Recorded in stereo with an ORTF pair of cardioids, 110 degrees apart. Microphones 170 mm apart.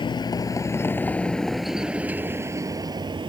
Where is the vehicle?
30° left; by 3.3 s 30° right.